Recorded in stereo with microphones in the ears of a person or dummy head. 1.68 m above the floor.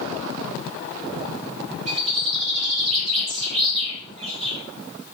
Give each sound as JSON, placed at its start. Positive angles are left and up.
{"t": 1.9, "sound": "a bird", "side_deg": -35, "distance_m": 1.1}